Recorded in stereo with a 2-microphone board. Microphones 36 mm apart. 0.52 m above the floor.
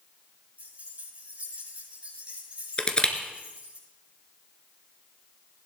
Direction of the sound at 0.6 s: 45° right (ahead or behind).